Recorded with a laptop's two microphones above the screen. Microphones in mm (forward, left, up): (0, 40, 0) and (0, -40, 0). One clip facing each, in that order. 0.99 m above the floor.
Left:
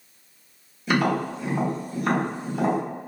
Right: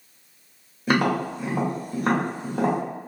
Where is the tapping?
45° right (ahead or behind), 1.2 m.